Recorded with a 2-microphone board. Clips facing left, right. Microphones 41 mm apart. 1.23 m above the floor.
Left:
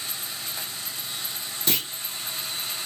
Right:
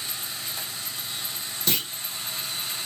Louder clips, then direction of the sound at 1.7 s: Even; 10° left (ahead or behind).